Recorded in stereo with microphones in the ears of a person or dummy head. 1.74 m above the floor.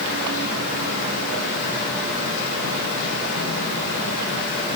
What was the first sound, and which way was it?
Only background noise.